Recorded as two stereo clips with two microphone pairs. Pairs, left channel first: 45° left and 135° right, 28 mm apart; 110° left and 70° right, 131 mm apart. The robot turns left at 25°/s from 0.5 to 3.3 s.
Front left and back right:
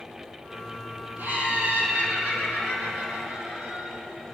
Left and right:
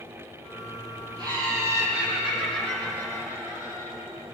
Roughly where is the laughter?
Behind right.